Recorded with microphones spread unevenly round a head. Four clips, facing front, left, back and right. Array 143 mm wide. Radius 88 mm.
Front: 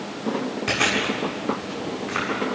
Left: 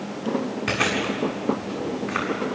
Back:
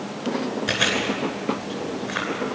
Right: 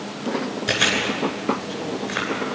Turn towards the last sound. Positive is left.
turn(degrees=60)